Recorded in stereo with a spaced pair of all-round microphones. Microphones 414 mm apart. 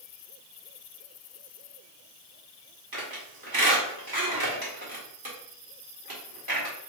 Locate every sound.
2.9 s a squeak: 55° right (ahead or behind), 2 m